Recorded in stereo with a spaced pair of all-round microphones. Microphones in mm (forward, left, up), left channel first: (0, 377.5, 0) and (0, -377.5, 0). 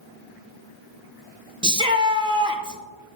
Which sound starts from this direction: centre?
A shout, at 1.6 s.